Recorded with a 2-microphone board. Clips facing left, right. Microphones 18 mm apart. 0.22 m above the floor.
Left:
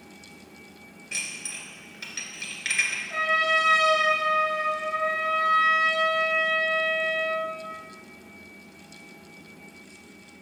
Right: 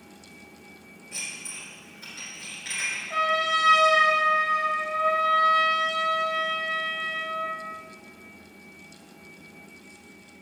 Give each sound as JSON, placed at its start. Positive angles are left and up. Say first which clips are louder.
{"t": 1.1, "sound": "dishes clattering", "louder": "left 3 dB", "side_deg": 45, "distance_m": 2.0}
{"t": 3.1, "sound": "a trumpet", "louder": "even", "side_deg": -20, "distance_m": 1.9}